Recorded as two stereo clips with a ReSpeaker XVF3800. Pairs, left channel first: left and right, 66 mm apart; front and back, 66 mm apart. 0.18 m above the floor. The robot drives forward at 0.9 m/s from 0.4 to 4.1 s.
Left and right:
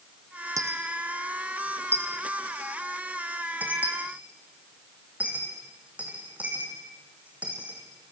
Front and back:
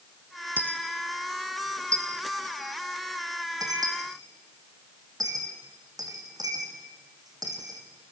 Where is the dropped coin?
115° right, 1.9 m; by 7.8 s 160° right, 4.5 m.